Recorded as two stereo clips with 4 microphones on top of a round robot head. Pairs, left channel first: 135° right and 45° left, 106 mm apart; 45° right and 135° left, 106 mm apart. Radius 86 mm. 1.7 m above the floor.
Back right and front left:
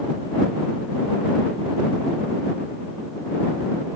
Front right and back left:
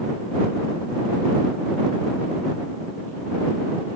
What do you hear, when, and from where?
Only background noise.